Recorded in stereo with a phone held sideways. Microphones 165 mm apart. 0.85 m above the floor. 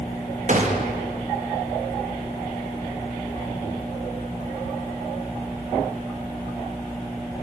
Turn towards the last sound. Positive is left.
turn(degrees=-50)  # may be behind; listen again after turning